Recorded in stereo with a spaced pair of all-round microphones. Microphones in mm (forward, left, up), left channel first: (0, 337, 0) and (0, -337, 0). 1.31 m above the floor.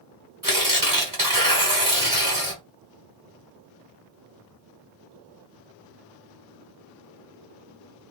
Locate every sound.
0.4 s tearing paper: 30° right (ahead or behind), 1.6 m